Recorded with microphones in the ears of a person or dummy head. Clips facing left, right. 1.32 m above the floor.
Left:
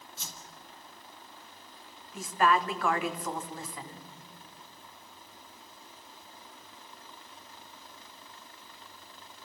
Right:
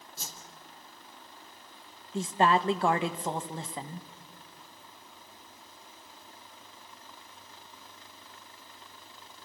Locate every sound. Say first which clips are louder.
0.2 s a whoosh: right 2 dB; 35° right (ahead or behind), 2.0 m
2.1 s a woman speaking: right 2 dB; 25° right (ahead or behind), 1.3 m